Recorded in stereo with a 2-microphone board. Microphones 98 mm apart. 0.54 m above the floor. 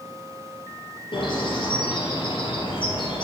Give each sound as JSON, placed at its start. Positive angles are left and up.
{"t": 1.1, "sound": "a bird", "side_deg": 55, "distance_m": 2.0}